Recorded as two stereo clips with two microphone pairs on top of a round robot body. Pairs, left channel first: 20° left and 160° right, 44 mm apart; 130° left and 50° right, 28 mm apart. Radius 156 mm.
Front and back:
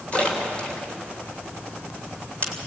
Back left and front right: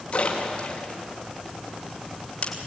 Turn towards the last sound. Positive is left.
turn(degrees=80)